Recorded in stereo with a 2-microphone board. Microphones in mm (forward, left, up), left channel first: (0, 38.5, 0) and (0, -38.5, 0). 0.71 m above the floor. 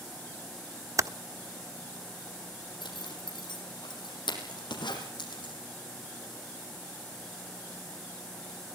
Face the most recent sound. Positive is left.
turn(degrees=80)